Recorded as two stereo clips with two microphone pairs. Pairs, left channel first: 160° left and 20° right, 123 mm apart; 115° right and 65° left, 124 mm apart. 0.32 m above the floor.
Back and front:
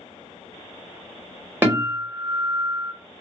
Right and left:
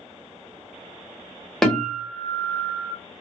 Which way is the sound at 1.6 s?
35° right.